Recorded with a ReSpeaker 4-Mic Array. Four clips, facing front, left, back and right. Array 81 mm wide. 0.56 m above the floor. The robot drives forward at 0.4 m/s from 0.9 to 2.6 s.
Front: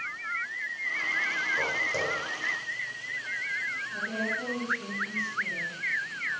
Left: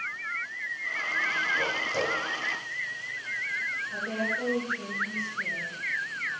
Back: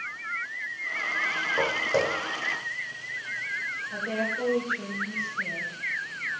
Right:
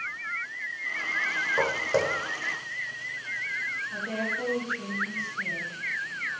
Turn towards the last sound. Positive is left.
turn(degrees=165)